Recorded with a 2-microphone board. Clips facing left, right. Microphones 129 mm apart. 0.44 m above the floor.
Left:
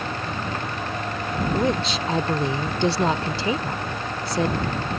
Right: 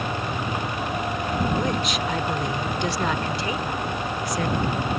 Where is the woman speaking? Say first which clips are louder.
Left 2 dB; 30° left (ahead or behind).